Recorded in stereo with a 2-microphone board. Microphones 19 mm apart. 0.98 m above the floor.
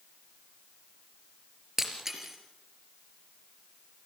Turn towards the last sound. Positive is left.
turn(degrees=-25)  # may be behind; listen again after turning